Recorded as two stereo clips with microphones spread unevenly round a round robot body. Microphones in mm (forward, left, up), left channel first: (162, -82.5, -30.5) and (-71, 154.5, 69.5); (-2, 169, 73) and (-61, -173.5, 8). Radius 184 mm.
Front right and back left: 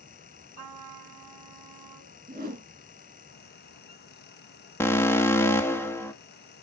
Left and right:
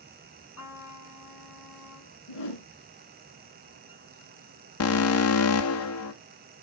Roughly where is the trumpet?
Behind left.